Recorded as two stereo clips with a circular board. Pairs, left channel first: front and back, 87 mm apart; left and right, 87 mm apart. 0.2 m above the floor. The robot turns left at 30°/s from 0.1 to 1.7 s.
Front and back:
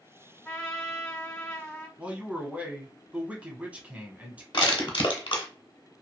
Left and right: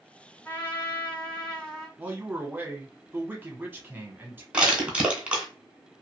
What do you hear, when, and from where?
0.5 s a trumpet: 50° left, 1.7 m; by 1.9 s 15° left, 1.7 m
2.0 s a man speaking: 125° right, 1.1 m
4.5 s crushing: 15° right, 1.1 m